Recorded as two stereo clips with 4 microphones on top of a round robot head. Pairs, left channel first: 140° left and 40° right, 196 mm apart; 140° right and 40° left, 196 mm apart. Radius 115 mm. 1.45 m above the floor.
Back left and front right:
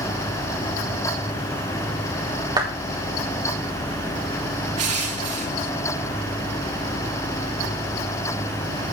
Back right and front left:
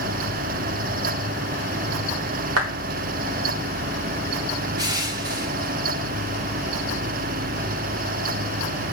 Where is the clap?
30° left, 4 m.